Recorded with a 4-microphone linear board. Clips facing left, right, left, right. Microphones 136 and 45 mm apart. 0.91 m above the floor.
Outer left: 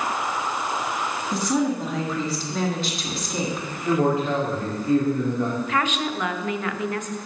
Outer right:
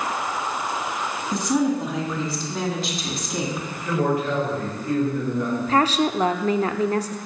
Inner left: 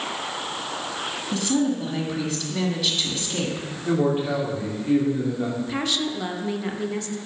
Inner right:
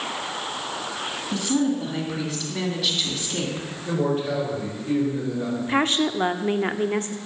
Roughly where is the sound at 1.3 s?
Centre.